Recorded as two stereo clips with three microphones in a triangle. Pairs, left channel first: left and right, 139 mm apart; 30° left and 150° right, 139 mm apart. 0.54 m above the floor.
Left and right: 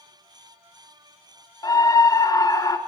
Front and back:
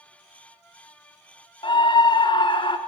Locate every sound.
1.6 s a scream: 45° left, 0.8 m